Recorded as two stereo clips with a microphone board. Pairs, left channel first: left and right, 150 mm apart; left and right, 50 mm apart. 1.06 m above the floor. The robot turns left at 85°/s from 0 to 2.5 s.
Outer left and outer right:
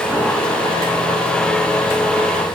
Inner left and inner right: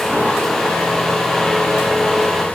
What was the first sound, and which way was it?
Only background noise.